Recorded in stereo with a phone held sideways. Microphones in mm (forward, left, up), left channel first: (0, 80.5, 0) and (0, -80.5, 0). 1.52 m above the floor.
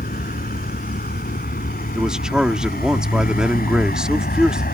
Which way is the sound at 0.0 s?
75° left (ahead or behind).